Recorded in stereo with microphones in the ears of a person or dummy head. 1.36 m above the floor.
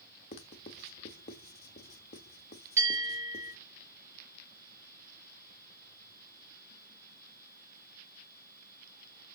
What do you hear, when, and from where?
0.3 s writing: 35° left (ahead or behind), 1.0 m
2.8 s a bell: 15° right (ahead or behind), 4.5 m